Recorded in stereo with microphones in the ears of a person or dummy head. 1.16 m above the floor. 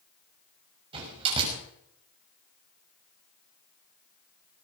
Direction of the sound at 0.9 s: 30° right (ahead or behind).